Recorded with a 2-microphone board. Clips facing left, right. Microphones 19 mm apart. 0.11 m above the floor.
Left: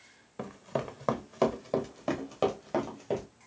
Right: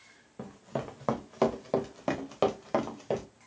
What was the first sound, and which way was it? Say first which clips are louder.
Running footsteps: left 2 dB; 30° left (ahead or behind).